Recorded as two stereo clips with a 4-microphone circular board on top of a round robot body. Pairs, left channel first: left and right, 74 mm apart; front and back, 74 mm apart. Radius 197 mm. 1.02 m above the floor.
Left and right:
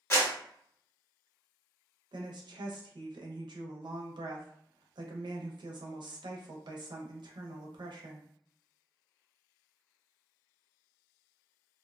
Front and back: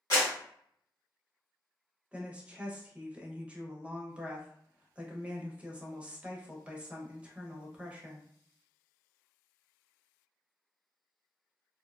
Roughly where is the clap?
Ahead left.